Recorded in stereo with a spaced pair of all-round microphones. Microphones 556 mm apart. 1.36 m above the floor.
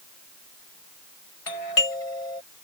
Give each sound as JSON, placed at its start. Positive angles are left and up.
{"t": 1.5, "sound": "a doorbell", "side_deg": 75}